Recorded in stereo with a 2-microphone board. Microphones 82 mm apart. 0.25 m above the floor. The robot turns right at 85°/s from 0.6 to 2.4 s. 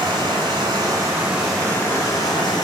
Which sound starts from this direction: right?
Running water, at 0.0 s.